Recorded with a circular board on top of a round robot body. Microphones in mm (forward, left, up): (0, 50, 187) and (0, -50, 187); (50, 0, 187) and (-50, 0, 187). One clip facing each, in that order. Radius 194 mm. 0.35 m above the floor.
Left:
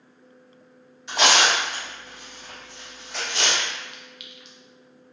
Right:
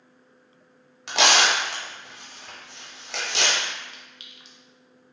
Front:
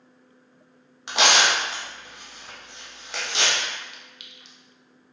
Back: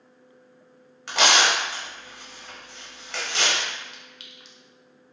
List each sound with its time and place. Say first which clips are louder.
1.1 s tearing paper: left 1 dB, even; 70° right, 0.6 m
3.9 s a clink: left 4 dB, back 1 dB; 140° right, 0.6 m